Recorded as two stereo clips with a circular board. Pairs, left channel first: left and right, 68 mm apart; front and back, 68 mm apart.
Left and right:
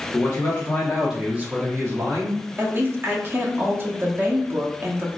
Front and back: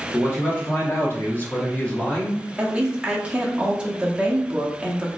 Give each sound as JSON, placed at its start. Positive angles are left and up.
{"t": 0.1, "sound": "a man speaking", "azimuth_deg": 55, "distance_m": 1.0}
{"t": 2.6, "sound": "a woman speaking", "azimuth_deg": -115, "distance_m": 0.7}